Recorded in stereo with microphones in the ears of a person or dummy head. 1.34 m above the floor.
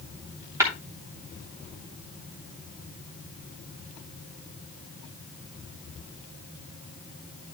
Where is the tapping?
20° right (ahead or behind), 3 m.